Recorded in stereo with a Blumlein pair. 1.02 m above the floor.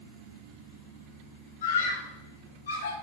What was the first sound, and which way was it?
A scream, 60° left.